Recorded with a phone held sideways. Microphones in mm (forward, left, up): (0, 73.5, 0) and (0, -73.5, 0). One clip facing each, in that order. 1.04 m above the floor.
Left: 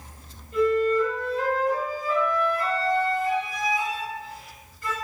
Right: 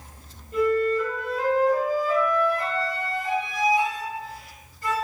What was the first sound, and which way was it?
A flute, 40° right (ahead or behind).